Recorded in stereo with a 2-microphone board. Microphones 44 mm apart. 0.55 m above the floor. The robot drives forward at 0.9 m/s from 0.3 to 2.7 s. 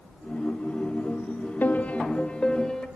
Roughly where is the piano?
Left.